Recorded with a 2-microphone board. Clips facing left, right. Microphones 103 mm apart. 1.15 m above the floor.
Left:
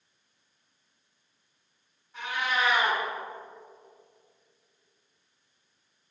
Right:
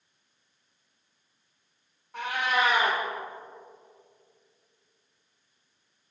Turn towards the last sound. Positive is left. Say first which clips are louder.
# right 3 dB
turn(degrees=-60)  # may be behind; listen again after turning